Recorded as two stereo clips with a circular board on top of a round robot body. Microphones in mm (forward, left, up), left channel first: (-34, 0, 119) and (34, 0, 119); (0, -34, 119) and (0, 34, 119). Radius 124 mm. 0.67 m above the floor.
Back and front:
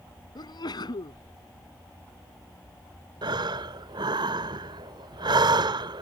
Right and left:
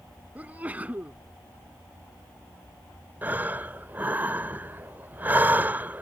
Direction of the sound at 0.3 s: 160° left.